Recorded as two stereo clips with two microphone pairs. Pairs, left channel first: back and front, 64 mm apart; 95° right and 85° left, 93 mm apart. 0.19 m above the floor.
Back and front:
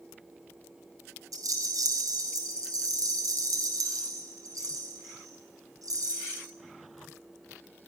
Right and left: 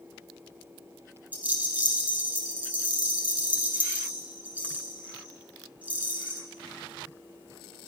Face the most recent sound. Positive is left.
turn(degrees=10)